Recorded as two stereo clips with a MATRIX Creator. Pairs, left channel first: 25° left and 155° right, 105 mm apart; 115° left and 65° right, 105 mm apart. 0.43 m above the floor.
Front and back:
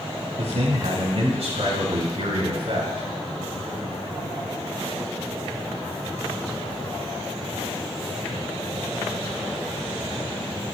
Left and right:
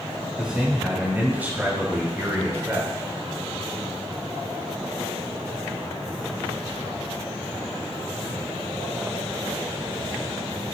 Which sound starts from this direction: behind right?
A man speaking, at 0.4 s.